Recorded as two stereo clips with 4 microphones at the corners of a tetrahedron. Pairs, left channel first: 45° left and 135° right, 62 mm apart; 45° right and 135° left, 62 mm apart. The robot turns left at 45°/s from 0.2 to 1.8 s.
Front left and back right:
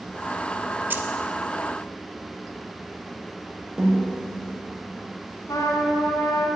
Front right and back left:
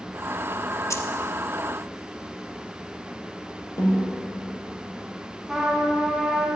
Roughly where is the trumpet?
Ahead left.